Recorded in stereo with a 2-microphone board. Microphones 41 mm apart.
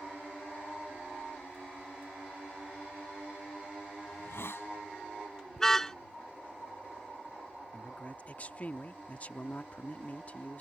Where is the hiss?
70° left (ahead or behind).